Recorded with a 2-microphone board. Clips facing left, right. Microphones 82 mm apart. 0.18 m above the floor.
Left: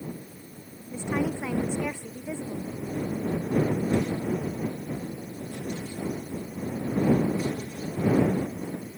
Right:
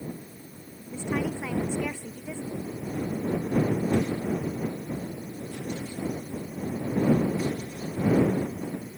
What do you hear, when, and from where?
0.9 s a woman speaking: 15° left (ahead or behind)